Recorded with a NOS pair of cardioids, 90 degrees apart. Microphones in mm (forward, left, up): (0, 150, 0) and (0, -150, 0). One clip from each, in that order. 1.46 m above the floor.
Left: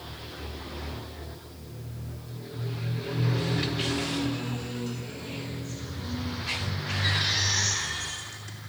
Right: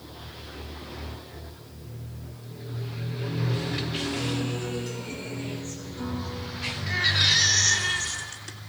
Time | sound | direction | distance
4.2 | a guitar | 55° right | 4.5 m
6.9 | a baby crying | 50° right | 3 m